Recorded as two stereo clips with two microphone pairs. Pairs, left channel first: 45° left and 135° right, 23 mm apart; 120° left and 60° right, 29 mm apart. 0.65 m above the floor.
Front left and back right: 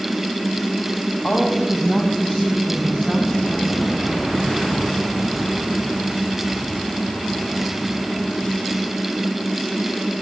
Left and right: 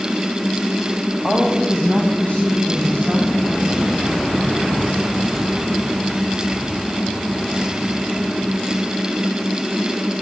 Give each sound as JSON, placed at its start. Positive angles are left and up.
{"t": 1.2, "sound": "a woman speaking", "azimuth_deg": 70, "distance_m": 3.5}